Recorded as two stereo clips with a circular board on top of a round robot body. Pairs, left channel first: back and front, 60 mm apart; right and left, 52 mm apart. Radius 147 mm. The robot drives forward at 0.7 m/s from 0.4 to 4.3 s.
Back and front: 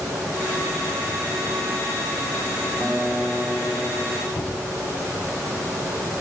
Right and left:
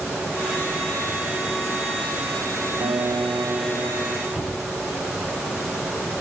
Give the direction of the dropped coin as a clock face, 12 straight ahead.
No dropped coin in this recording.